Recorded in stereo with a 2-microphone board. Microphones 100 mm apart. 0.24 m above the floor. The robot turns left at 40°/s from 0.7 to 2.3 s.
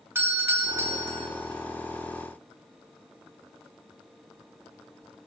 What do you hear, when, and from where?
0.1 s a doorbell: 25° right (ahead or behind), 1.5 m